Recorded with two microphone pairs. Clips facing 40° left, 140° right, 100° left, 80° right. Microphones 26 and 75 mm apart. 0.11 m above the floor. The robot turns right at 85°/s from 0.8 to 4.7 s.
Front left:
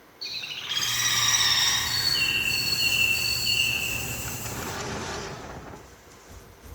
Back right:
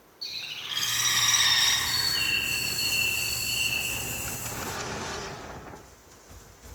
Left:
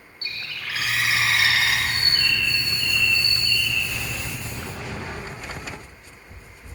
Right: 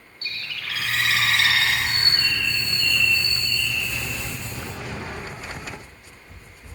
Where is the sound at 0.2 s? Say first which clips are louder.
Front left 2 dB, even; 100° left, 1.0 m; by 1.8 s straight behind, 1.0 m.